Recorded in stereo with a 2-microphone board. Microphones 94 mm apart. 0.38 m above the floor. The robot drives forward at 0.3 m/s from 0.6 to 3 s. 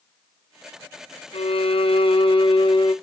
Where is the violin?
80° left, 0.7 m; by 2.9 s 50° left (ahead or behind), 0.9 m.